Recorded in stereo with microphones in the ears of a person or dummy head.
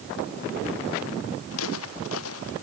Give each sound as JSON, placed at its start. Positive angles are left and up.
{"t": 1.5, "sound": "footsteps", "side_deg": 80}